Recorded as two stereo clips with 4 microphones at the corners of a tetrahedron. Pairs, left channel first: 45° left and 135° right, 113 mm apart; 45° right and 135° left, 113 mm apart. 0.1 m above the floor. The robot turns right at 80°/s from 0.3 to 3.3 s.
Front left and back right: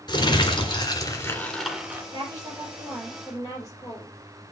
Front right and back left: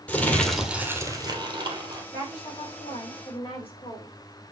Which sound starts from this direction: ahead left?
Crumpling, at 0.1 s.